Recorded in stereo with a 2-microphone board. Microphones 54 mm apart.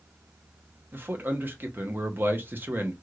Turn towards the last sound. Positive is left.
turn(degrees=-40)  # may be behind; listen again after turning